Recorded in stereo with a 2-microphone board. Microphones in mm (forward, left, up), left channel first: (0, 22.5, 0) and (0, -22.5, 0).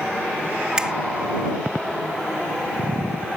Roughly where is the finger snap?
Centre.